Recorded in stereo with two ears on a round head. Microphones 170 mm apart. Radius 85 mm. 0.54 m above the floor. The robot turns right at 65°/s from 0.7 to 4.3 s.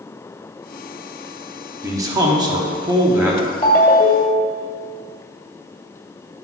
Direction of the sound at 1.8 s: 15° right (ahead or behind).